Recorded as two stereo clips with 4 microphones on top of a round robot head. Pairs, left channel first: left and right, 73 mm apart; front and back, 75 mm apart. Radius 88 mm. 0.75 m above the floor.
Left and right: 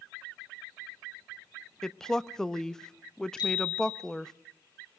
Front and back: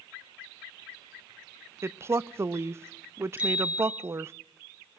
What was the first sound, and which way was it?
A woman speaking, 165° left.